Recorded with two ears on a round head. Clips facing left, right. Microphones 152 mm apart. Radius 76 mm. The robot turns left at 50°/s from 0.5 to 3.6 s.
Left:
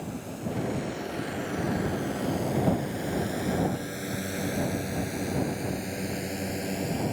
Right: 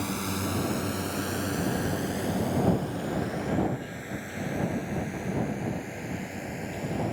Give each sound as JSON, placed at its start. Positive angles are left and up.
{"t": 0.0, "sound": "a drone", "side_deg": -85}